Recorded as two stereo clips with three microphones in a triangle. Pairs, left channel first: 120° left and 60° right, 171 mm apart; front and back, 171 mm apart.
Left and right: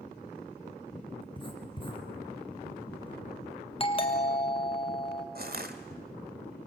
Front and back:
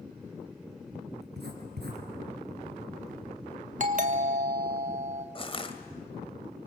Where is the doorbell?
165° left, 1.4 m.